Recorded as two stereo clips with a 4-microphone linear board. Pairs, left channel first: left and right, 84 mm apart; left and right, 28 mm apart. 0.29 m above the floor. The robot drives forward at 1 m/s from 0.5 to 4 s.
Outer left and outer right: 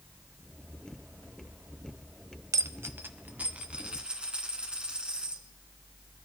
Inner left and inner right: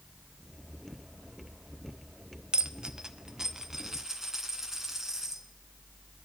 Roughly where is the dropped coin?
Right.